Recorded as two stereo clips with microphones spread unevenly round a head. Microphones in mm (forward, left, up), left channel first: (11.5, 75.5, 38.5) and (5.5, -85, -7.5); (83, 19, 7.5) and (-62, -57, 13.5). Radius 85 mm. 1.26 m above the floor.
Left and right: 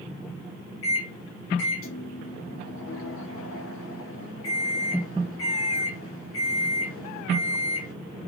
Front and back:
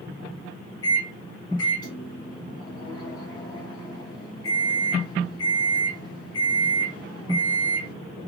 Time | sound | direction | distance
0.8 | a microwave | 95° left | 0.9 m